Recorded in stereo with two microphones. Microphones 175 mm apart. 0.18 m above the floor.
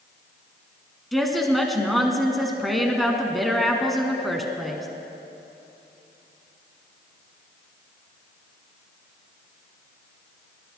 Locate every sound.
1.1 s a woman speaking: centre (ahead or behind), 1.6 m